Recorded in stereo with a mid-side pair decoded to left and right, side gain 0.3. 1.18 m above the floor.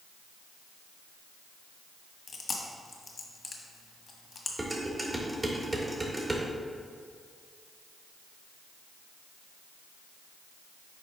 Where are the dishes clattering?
25° right, 1.9 m.